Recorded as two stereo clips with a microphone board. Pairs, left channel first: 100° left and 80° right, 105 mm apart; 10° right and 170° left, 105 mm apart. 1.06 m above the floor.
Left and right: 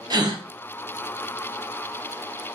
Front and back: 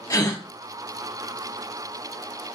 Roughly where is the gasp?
Ahead right.